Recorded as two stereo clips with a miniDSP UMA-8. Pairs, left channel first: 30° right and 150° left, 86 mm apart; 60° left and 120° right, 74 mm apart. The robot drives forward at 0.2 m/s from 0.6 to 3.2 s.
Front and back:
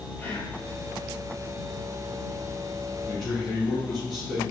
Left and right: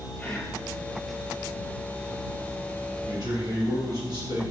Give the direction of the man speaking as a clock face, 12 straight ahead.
4 o'clock.